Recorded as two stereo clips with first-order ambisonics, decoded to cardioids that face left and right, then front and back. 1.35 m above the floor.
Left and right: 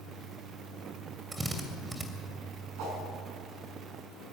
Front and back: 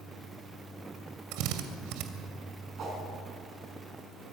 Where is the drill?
170° right, 2.5 m.